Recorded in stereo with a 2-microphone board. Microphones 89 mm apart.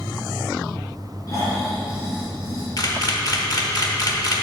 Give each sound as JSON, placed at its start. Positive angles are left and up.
{"t": 1.3, "sound": "snoring", "side_deg": 40, "distance_m": 3.0}
{"t": 2.8, "sound": "a camera shutter", "side_deg": 50, "distance_m": 1.0}